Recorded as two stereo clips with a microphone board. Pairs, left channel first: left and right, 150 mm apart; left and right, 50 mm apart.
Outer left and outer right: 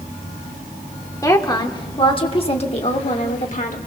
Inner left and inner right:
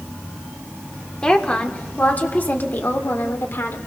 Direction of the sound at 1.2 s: 20° left (ahead or behind).